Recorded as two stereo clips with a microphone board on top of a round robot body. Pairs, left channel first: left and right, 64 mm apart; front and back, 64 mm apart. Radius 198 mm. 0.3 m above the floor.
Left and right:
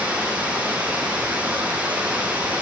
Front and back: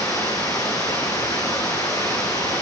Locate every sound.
0.0 s running water: 20° right, 9.5 m